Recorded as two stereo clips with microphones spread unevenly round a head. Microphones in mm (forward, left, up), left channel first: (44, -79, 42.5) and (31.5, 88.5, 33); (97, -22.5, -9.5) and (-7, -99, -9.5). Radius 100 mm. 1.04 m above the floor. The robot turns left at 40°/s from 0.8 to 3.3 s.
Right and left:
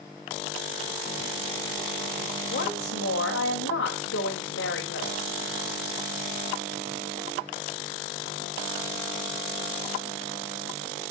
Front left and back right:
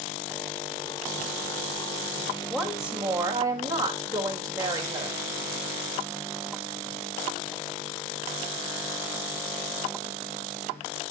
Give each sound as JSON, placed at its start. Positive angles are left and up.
{"t": 2.5, "sound": "a woman speaking", "azimuth_deg": -45, "distance_m": 3.5}